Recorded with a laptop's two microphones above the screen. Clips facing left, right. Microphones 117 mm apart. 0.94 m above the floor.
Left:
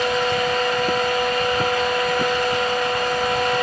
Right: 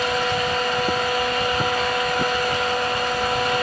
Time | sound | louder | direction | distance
0.0 | a fan | left 2 dB | 10° right (ahead or behind) | 3 m